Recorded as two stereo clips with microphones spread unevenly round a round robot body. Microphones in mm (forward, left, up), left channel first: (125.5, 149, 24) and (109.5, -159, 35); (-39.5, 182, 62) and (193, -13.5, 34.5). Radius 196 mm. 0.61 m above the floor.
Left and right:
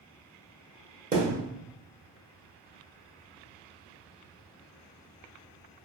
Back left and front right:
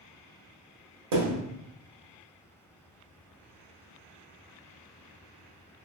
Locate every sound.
1.1 s a thud: 30° right, 1.2 m